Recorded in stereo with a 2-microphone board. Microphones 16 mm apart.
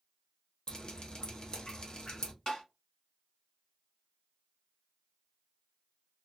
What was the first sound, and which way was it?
Dripping, 40° left (ahead or behind).